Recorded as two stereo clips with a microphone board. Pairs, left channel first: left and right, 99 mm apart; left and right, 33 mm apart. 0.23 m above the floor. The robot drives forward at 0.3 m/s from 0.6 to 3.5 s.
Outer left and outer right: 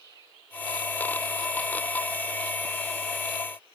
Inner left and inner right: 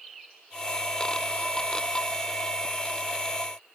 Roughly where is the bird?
I don't hear a bird.